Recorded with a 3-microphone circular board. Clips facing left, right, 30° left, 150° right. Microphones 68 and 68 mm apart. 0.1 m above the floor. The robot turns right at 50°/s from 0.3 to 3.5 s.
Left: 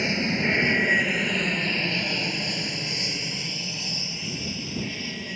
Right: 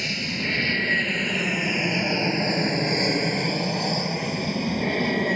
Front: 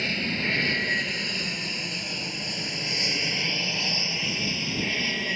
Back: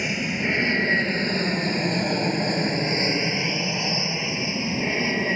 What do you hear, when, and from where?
0.0 s an aircraft: 140° left; by 5.4 s 95° right